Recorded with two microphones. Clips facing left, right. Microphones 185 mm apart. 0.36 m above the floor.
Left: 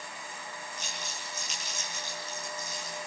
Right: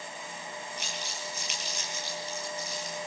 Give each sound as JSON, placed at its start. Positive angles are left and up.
{"t": 0.8, "sound": "crumpling", "side_deg": -70, "distance_m": 8.0}